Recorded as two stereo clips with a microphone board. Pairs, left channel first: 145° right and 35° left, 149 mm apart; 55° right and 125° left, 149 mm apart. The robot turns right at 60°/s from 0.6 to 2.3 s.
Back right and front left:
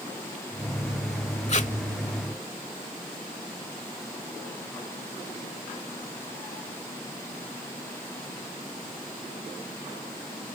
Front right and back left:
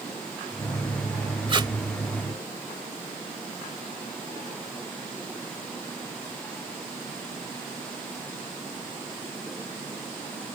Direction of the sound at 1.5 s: 175° left.